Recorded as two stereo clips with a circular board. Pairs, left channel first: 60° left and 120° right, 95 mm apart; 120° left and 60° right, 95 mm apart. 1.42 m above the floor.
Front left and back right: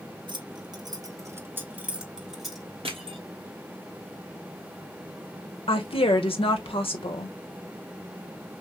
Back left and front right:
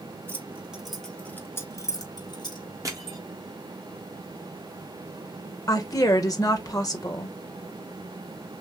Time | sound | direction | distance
0.3 | keys jangling | 120° right | 1.0 m
2.9 | crushing | 115° right | 1.3 m
5.7 | a woman speaking | 70° left | 1.3 m